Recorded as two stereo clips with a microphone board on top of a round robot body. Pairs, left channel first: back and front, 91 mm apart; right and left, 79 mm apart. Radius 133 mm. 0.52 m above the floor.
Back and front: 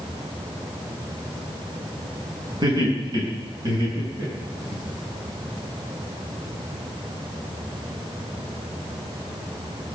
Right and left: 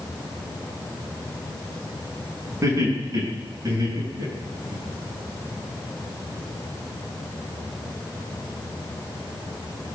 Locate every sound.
2.6 s laughter: 35° left, 6.5 m; by 4.8 s 45° left, 9 m